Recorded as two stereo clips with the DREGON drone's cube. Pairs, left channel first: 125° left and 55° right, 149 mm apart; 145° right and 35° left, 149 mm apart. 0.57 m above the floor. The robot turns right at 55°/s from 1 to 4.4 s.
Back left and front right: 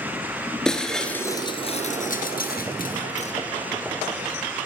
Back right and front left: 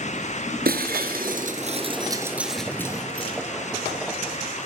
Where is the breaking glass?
40° left, 2.5 m; by 3.3 s 165° left, 2.5 m.